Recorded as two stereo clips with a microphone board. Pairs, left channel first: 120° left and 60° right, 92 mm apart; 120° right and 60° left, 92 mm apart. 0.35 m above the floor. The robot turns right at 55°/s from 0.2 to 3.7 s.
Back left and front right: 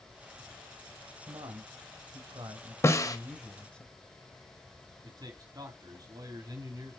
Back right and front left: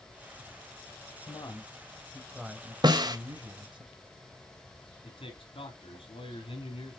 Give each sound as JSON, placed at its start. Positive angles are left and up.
{"t": 1.3, "sound": "a man speaking", "azimuth_deg": -90, "distance_m": 1.7}
{"t": 2.8, "sound": "a snare drum", "azimuth_deg": 70, "distance_m": 1.2}
{"t": 5.0, "sound": "a man speaking", "azimuth_deg": -105, "distance_m": 3.5}